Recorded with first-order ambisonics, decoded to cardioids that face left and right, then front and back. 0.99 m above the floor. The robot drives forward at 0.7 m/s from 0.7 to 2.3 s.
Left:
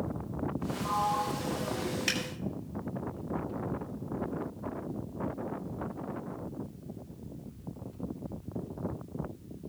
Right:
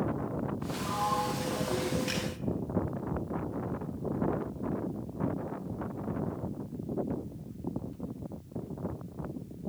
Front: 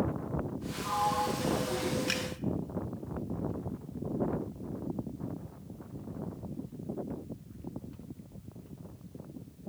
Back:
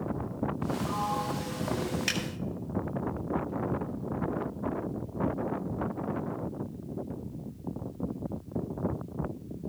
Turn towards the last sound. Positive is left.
turn(degrees=150)